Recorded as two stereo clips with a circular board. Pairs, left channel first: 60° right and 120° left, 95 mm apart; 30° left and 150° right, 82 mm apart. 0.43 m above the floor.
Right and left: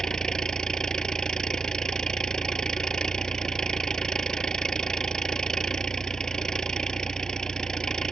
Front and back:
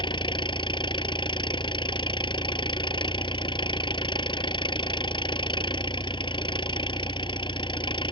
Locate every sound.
0.0 s an engine running: 25° left